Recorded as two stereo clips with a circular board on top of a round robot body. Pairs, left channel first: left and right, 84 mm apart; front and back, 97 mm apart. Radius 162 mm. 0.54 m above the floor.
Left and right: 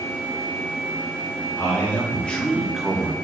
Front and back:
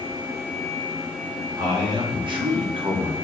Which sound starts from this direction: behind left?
A man speaking, at 1.6 s.